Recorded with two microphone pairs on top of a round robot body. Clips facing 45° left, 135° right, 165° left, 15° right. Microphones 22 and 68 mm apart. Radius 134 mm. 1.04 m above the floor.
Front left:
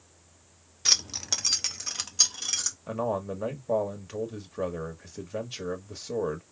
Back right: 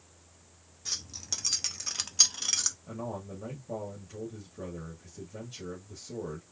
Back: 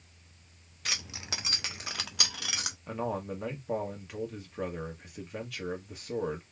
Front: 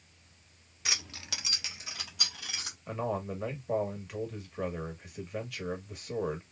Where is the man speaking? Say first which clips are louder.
Front left 9 dB, front 1 dB; 75° left, 1.4 m.